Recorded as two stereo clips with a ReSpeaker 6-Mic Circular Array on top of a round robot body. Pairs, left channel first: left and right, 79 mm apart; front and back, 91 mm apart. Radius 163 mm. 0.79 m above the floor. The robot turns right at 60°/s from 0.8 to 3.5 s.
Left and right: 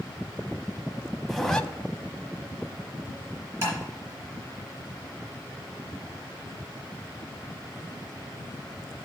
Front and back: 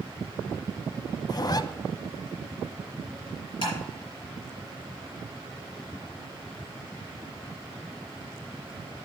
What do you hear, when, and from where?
1.3 s a zipper: 5° right, 0.9 m; by 1.6 s 15° left, 0.9 m
3.6 s tapping: 30° right, 4 m